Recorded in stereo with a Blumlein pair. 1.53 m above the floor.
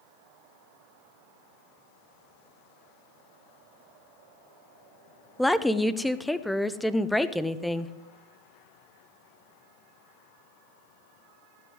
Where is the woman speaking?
5° left, 0.6 m.